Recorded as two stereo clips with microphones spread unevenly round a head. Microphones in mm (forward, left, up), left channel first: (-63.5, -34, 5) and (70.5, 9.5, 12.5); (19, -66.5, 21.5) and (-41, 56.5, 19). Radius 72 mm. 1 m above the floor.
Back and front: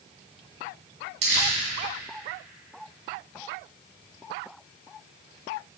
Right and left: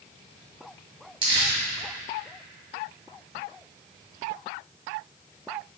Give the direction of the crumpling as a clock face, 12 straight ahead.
10 o'clock.